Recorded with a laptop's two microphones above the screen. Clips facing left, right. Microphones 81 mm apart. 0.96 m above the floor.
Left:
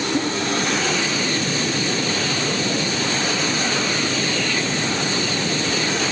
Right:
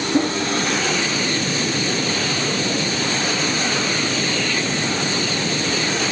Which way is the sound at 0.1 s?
20° right (ahead or behind).